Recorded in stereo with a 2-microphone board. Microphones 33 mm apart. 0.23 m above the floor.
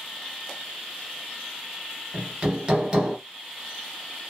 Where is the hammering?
30° right (ahead or behind), 1.0 m.